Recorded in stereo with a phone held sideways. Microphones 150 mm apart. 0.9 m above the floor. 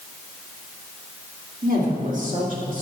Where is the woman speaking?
70° right (ahead or behind), 3 m; by 2.8 s 60° right (ahead or behind), 3.5 m.